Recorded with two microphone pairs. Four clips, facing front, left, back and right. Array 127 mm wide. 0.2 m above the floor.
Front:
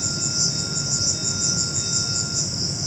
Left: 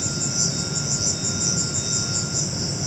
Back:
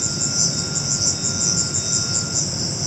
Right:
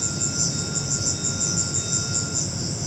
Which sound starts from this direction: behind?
An insect, at 0.0 s.